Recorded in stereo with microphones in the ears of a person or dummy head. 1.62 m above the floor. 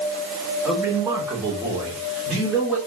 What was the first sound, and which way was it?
A man speaking, centre (ahead or behind).